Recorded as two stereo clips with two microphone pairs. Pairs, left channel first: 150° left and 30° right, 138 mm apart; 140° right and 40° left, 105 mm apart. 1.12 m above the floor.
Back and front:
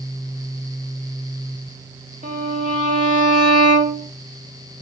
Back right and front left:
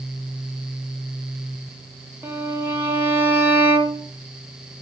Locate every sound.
2.2 s a violin: 25° right, 2.5 m